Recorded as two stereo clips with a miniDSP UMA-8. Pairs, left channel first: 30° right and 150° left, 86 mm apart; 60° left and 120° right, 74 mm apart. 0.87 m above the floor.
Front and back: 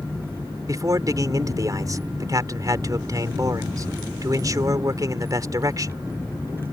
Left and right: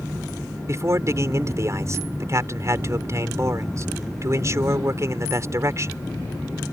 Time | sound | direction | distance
0.7 | a man speaking | 165° right | ?